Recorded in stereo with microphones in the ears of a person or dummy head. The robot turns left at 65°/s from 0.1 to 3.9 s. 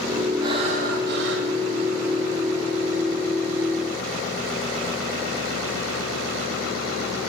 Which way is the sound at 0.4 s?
25° right.